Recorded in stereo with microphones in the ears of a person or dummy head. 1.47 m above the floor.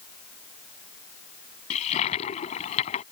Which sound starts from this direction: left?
A toilet flushing, at 1.7 s.